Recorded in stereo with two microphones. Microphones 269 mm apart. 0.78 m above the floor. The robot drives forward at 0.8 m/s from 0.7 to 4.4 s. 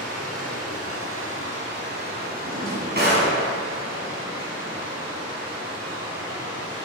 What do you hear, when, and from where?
0.0 s running water: 60° right (ahead or behind), 1.4 m; by 6.9 s 20° right (ahead or behind), 3.5 m
2.4 s a drawer: 35° right (ahead or behind), 3 m; by 3.3 s 45° right (ahead or behind), 2.5 m